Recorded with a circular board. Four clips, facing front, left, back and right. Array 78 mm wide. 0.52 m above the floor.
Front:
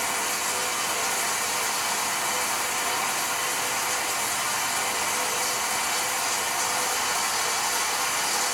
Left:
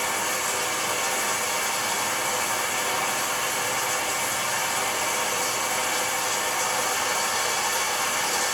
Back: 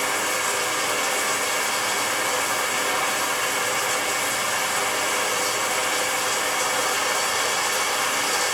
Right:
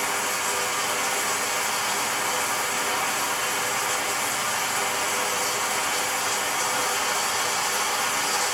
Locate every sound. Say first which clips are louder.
0.0 s running water: even, back 4 dB; 165° right, 1.5 m